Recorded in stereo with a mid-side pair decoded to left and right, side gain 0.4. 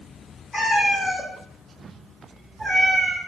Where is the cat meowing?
25° left, 1.6 m; by 3.2 s 45° right, 0.9 m.